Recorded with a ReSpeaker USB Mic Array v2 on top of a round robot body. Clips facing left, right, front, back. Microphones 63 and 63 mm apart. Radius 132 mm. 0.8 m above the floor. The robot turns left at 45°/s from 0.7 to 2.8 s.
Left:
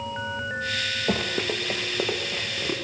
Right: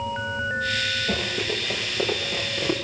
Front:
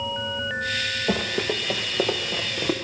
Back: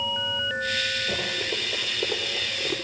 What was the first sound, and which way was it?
Running footsteps, 55° left.